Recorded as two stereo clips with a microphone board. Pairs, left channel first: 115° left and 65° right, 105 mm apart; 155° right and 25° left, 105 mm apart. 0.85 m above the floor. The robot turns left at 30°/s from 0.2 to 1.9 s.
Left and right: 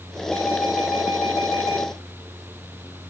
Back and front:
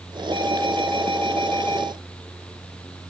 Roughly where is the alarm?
Ahead left.